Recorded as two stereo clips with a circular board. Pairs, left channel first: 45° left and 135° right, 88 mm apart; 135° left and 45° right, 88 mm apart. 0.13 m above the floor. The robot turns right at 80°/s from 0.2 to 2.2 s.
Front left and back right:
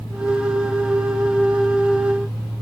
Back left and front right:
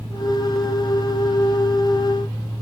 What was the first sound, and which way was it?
Only background noise.